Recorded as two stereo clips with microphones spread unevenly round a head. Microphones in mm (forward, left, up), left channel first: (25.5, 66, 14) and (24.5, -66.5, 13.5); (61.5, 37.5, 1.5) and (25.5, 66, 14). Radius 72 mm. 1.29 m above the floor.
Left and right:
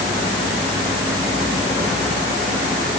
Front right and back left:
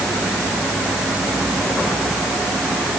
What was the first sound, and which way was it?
Only background noise.